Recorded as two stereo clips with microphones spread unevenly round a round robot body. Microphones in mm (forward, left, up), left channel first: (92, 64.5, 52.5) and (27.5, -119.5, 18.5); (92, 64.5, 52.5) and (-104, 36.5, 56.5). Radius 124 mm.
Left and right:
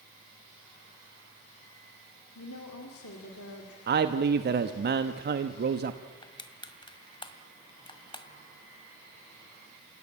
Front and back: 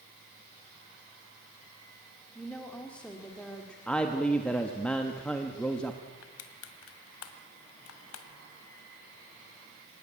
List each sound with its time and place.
2.4 s a woman speaking: 90° left, 2 m
3.9 s a man speaking: 75° right, 1.1 m
6.2 s crushing: 10° left, 1.8 m